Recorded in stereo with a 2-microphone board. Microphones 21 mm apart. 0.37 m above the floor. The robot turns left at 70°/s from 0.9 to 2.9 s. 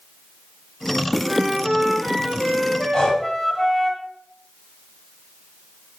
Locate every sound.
1.2 s a flute: 105° right, 1.6 m; by 3.9 s 140° left, 1.6 m
2.9 s breathing: 40° left (ahead or behind), 1.2 m